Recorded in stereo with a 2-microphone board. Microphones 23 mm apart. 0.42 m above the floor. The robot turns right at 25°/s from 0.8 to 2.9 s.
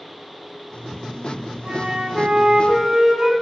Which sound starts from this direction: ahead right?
A flute, at 1.6 s.